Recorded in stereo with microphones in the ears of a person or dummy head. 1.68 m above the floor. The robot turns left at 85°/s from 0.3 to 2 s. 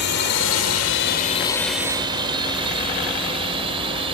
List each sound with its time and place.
0.0 s a drone: 55° left (ahead or behind); by 4.1 s 25° right (ahead or behind)